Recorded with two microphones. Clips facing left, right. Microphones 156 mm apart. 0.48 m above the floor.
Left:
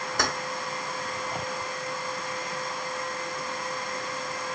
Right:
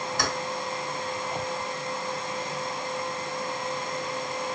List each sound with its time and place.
0.2 s keys jangling: 50° left (ahead or behind), 1.4 m